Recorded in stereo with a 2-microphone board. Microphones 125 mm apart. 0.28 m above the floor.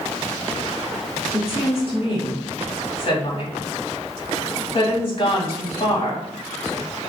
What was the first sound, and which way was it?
A woman speaking, 50° left (ahead or behind).